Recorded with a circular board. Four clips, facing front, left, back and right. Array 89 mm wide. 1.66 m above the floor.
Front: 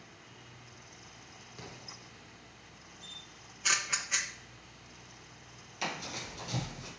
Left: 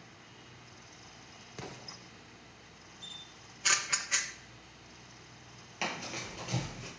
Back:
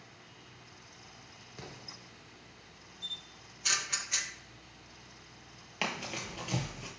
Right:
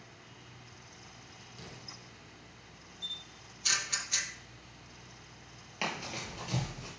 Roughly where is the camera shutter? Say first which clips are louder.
Right 1 dB, even; ahead left.